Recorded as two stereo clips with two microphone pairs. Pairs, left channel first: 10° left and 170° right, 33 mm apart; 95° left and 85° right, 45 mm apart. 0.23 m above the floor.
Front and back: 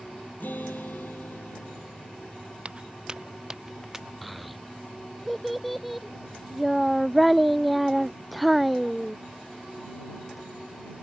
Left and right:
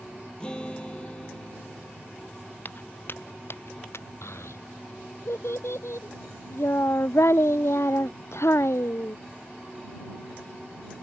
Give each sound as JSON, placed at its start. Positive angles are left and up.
{"t": 0.4, "sound": "a guitar", "azimuth_deg": 25}
{"t": 2.6, "sound": "footsteps", "azimuth_deg": 135}
{"t": 4.2, "sound": "a child speaking", "azimuth_deg": 100}